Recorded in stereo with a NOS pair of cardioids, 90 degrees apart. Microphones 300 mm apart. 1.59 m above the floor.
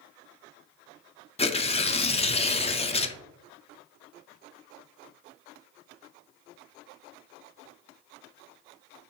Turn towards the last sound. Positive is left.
turn(degrees=20)